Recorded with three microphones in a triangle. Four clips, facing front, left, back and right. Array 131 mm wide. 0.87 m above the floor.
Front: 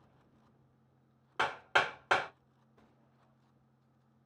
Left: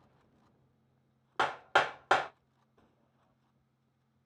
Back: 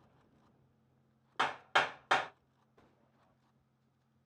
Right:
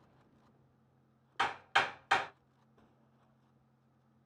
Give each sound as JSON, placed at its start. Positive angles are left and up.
{"t": 1.4, "sound": "hammering", "azimuth_deg": 80, "distance_m": 1.3}